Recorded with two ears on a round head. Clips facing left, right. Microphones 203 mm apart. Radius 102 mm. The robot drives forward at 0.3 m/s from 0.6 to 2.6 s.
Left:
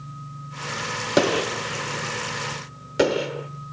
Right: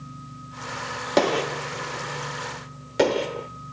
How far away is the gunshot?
About 0.7 m.